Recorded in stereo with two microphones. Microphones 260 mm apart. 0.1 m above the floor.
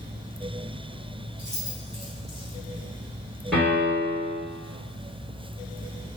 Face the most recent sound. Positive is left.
turn(degrees=0)  # may be behind; listen again after turning